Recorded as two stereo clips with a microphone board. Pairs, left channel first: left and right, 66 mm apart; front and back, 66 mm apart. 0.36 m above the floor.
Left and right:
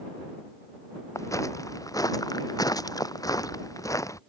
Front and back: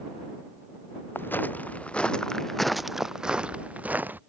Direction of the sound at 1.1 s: 55° left.